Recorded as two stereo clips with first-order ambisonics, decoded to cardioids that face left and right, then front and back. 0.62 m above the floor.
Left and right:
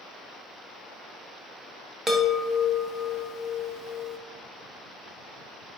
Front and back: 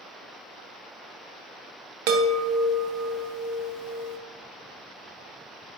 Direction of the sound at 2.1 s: 170° right.